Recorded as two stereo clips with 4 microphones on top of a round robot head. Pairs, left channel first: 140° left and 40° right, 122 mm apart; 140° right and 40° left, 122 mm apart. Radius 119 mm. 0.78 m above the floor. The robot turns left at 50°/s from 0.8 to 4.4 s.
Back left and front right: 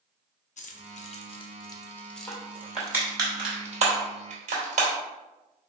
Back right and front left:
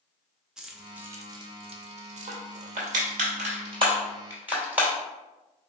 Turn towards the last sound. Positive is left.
turn(degrees=-35)